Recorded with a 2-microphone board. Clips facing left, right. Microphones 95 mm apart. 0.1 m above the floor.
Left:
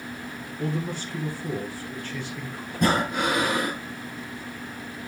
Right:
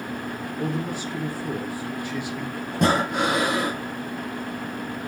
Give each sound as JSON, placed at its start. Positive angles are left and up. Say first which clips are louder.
{"t": 0.6, "sound": "a man speaking", "louder": "right 1 dB", "side_deg": -15, "distance_m": 1.6}
{"t": 2.7, "sound": "breathing", "louder": "right 2 dB", "side_deg": -70, "distance_m": 4.5}